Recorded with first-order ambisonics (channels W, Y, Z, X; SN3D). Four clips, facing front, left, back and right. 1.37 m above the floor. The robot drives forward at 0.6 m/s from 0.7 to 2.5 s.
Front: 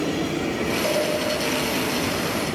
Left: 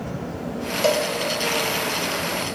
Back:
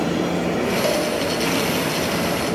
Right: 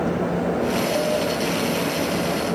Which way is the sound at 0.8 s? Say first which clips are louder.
Left 2 dB, even; 110° left.